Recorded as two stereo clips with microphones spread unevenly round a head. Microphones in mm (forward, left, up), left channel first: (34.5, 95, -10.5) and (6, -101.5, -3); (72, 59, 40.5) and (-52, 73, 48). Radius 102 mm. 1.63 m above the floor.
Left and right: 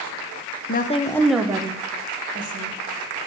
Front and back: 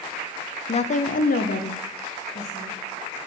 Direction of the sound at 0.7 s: 35° left.